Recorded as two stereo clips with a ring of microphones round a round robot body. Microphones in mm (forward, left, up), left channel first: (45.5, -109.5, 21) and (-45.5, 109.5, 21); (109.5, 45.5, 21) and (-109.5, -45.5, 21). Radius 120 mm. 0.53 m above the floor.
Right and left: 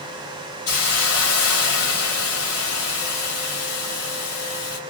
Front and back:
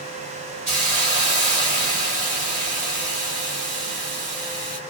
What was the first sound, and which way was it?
A hiss, 100° right.